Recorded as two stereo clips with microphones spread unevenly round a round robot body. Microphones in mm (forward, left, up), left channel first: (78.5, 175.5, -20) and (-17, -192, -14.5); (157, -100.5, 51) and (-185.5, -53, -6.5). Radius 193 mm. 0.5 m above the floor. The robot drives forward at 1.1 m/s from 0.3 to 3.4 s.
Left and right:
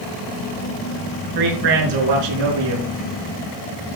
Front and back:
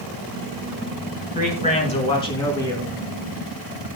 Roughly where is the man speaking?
Right.